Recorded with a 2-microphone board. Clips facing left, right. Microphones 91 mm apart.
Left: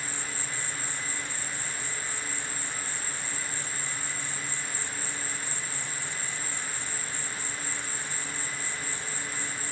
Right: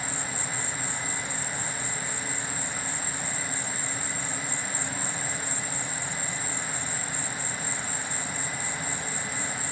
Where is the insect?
60° right (ahead or behind).